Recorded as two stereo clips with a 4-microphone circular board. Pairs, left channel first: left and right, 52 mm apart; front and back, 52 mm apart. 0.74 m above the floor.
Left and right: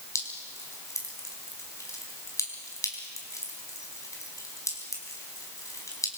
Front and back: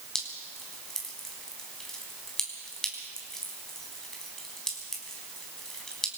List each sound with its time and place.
0.1 s dripping: 80° left, 4 m